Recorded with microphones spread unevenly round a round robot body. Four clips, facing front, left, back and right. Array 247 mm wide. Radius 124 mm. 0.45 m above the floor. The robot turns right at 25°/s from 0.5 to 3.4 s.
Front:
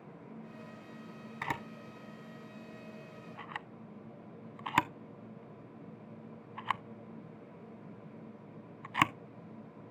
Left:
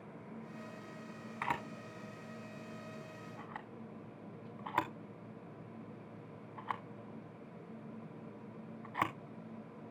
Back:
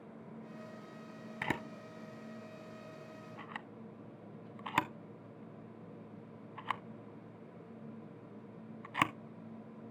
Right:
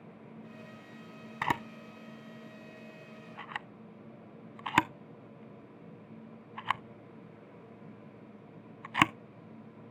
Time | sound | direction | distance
1.4 | a camera shutter | 140° right | 0.5 m